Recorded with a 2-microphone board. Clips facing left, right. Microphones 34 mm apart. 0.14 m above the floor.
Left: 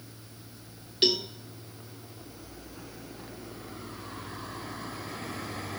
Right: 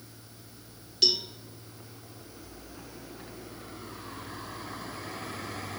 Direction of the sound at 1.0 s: 30° left (ahead or behind).